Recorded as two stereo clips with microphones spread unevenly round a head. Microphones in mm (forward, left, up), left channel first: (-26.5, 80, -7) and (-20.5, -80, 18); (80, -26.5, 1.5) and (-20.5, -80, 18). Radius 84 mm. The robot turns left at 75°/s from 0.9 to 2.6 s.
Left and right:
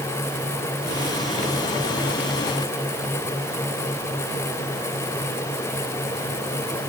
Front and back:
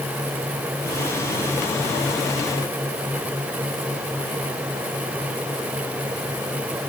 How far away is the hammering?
No hammering in this recording.